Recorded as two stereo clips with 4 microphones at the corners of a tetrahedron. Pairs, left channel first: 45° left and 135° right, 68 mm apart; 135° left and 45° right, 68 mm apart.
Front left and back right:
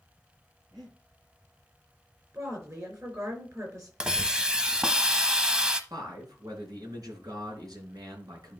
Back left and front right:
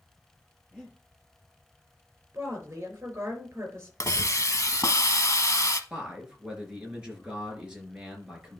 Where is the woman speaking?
95° right, 4.5 m.